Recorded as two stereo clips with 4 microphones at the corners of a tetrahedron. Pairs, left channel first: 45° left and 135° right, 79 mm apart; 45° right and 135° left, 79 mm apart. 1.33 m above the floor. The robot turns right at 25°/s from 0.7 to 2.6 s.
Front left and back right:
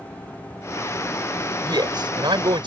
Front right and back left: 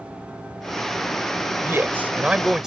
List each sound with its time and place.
1.6 s a man speaking: 165° right; by 2.7 s 140° right